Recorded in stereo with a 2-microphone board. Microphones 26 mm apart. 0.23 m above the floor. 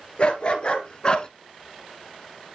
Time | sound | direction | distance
0.2 | a dog barking | 45° left (ahead or behind) | 1.8 m